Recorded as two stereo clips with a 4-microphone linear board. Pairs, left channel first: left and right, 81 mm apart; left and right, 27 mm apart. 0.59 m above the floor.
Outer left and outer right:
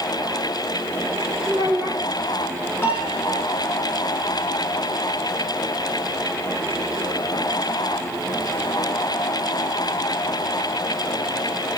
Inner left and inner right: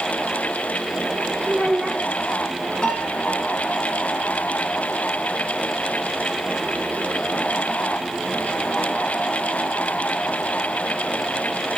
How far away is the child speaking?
About 2.5 m.